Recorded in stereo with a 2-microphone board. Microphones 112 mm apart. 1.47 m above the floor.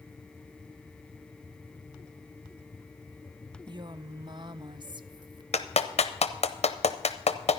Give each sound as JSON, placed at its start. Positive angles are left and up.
{"t": 3.7, "sound": "a woman speaking", "side_deg": -45, "distance_m": 0.6}
{"t": 5.5, "sound": "a clap", "side_deg": 75, "distance_m": 0.7}